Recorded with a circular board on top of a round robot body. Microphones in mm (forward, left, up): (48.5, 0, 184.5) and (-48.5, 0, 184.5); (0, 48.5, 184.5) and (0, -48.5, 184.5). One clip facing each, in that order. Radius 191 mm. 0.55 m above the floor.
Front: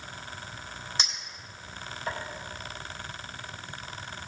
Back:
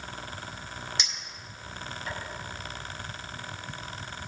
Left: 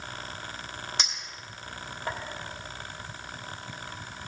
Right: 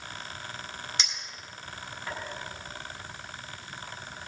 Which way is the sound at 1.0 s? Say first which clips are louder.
Front 2 dB, left 2 dB; 50° left.